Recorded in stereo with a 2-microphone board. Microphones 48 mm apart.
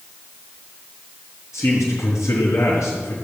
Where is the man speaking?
80° left, 4 m.